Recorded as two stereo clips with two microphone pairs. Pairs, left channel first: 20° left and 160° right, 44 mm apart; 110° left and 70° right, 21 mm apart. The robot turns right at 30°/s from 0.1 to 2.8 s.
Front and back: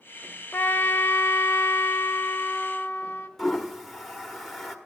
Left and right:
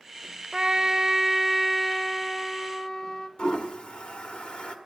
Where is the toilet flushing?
115° left, 1.5 m.